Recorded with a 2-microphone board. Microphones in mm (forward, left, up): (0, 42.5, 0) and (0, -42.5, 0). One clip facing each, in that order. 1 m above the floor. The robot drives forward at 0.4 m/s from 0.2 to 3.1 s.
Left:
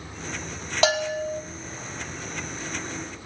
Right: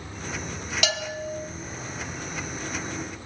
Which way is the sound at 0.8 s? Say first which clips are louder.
Left 8 dB; 35° left (ahead or behind).